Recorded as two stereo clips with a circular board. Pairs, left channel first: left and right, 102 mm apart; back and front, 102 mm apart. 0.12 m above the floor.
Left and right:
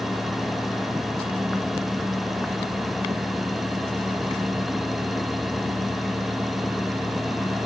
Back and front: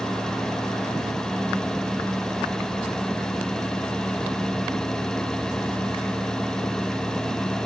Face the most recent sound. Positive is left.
No sound to turn to.